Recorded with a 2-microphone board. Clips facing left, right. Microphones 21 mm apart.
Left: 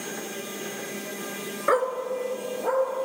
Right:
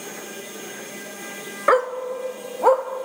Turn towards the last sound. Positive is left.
turn(degrees=-75)  # may be behind; listen again after turning